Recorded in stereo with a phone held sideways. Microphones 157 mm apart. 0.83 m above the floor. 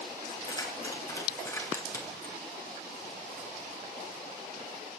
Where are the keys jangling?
25° left (ahead or behind), 6 m; by 2.4 s 15° left (ahead or behind), 5.5 m.